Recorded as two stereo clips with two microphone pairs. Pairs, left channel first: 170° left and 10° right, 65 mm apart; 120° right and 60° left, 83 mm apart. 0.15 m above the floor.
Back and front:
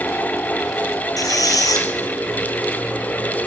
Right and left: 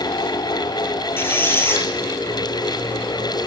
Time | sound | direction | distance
1.2 | a squeak | straight behind | 0.8 m